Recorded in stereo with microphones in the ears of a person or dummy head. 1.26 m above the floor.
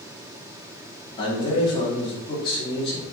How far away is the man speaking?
About 3 m.